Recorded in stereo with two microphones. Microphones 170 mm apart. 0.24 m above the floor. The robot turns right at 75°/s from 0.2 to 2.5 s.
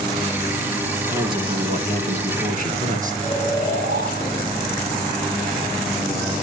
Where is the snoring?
80° right, 10 m.